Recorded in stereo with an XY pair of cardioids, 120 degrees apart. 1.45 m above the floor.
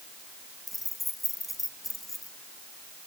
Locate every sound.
0.7 s keys jangling: 15° left, 1.5 m